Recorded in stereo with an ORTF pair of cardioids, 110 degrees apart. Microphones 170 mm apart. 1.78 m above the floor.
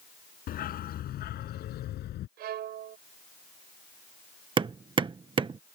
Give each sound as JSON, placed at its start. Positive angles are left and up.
{"t": 0.5, "sound": "a dog barking", "azimuth_deg": 60}
{"t": 2.4, "sound": "a violin", "azimuth_deg": -70}
{"t": 4.6, "sound": "hammering", "azimuth_deg": -30}